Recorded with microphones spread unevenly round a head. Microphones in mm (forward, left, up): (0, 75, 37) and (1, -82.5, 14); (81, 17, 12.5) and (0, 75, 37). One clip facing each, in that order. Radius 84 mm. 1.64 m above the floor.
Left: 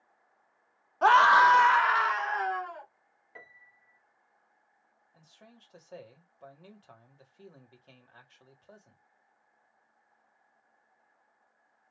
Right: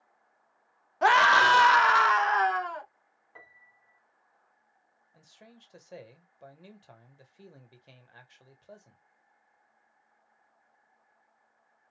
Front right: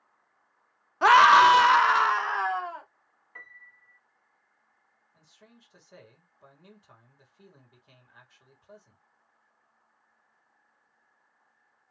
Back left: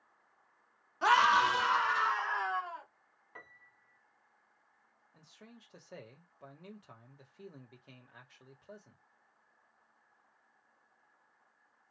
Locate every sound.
1.0 s a scream: 15° right, 0.7 m; by 2.9 s 85° right, 1.0 m
3.4 s a piano: 125° left, 0.6 m
5.1 s a man speaking: 170° right, 1.3 m